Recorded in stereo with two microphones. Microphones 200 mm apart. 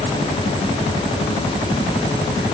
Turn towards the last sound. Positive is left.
No sound to turn to.